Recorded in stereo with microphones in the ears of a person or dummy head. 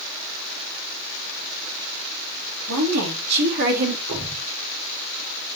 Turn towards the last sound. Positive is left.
turn(degrees=-65)  # may be behind; listen again after turning